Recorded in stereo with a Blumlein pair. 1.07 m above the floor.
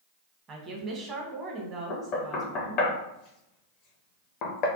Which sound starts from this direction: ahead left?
Knocking, at 1.9 s.